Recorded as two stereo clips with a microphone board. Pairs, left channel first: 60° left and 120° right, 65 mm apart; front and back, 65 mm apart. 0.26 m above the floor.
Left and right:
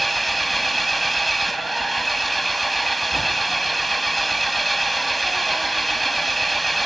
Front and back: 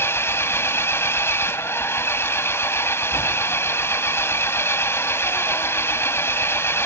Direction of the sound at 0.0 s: 30° right.